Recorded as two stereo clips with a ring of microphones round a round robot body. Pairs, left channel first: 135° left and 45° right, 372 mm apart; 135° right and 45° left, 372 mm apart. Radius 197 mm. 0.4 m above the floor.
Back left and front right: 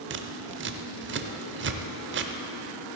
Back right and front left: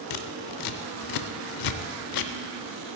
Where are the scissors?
105° right, 0.6 m.